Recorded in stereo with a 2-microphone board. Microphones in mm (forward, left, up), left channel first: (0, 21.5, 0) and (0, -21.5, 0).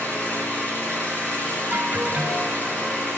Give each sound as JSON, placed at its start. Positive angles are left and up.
{"t": 0.0, "sound": "an engine running", "side_deg": 40, "distance_m": 3.5}
{"t": 1.7, "sound": "an alarm", "side_deg": -50, "distance_m": 1.1}